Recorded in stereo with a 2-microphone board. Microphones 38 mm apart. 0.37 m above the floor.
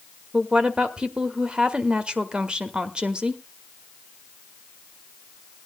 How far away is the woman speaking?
About 1.2 m.